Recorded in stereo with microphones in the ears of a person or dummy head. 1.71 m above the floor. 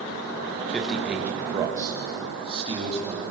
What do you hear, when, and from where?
0.7 s a man speaking: centre (ahead or behind), 2.5 m; by 3.2 s 35° right (ahead or behind), 4.5 m